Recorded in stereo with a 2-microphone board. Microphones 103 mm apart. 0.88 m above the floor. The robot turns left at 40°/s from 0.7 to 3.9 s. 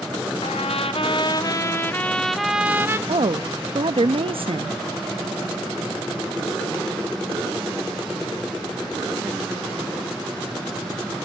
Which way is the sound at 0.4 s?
65° left.